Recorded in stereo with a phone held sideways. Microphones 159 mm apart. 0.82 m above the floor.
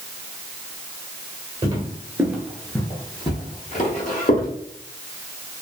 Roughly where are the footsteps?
Right.